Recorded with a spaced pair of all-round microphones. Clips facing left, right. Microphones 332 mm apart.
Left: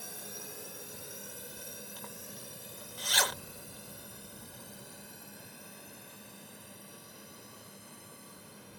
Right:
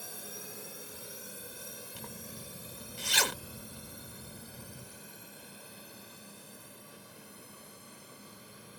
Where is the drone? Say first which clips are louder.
Even; centre (ahead or behind); by 8.8 s 5° right (ahead or behind).